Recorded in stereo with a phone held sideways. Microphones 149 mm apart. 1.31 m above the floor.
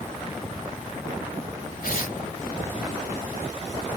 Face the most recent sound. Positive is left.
turn(degrees=75)  # may be behind; listen again after turning